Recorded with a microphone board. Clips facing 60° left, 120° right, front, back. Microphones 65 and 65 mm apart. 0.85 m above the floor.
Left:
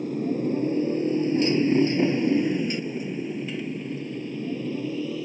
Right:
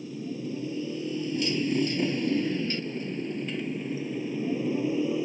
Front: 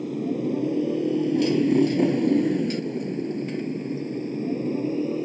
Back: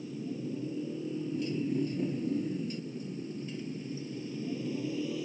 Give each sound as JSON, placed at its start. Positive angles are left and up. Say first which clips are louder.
{"t": 0.0, "sound": "a motorcycle", "louder": "left 9 dB, front 12 dB", "azimuth_deg": 25}